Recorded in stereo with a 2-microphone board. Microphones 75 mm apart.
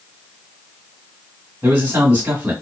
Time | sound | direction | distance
1.6 | a man speaking | 25° right (ahead or behind) | 1.5 m